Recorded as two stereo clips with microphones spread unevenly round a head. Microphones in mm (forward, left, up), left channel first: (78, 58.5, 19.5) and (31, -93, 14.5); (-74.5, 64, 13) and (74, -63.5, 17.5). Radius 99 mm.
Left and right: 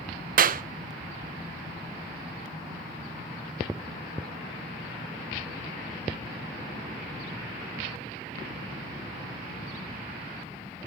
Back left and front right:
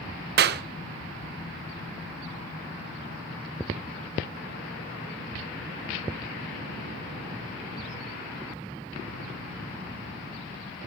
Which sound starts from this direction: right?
A clap, at 0.4 s.